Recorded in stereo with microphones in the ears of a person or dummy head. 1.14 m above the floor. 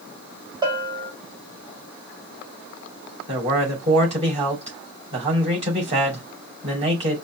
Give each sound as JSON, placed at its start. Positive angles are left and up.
{"t": 0.6, "sound": "a bell", "side_deg": -20, "distance_m": 1.5}
{"t": 3.3, "sound": "a man speaking", "side_deg": -35, "distance_m": 3.0}